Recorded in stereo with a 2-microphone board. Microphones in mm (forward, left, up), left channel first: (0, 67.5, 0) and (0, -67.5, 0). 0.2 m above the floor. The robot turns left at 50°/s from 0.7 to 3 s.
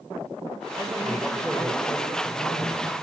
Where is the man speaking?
140° right, 6 m; by 2.8 s 115° left, 6 m.